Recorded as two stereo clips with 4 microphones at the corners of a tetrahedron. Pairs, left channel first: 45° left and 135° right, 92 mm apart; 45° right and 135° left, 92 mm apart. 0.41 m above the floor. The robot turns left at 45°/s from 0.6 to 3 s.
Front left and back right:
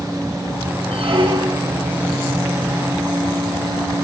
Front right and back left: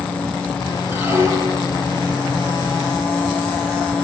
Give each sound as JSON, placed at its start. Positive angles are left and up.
{"t": 0.9, "sound": "a squeak", "azimuth_deg": -150, "distance_m": 4.5}